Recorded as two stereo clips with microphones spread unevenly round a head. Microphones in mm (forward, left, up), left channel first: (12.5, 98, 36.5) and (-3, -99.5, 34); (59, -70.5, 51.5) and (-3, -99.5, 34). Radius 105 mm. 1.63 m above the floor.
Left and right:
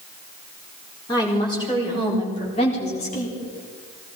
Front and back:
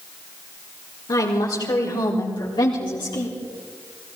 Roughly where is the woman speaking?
Ahead.